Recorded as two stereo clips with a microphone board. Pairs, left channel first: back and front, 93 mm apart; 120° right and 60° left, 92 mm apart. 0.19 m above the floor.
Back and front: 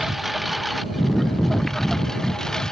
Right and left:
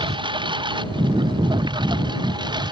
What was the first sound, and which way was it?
A lawn mower, 90° left.